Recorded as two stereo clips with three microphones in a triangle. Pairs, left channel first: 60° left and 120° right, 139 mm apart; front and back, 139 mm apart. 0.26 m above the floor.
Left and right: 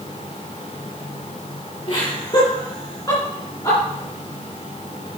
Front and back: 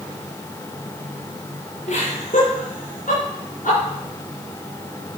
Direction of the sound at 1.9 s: 15° left.